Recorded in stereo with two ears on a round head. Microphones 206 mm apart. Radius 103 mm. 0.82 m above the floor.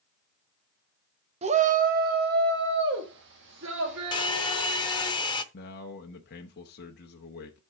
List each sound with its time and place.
1.4 s a shout: 30° right (ahead or behind), 0.8 m; by 5.1 s 55° right (ahead or behind), 2 m
4.1 s a hair dryer: 20° left (ahead or behind), 0.6 m
5.5 s a man speaking: 45° left (ahead or behind), 0.9 m